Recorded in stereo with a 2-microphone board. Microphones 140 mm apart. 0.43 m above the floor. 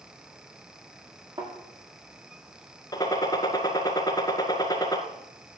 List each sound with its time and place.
1.4 s a thud: 40° right (ahead or behind), 8.5 m
2.9 s a gunshot: 25° left (ahead or behind), 1.7 m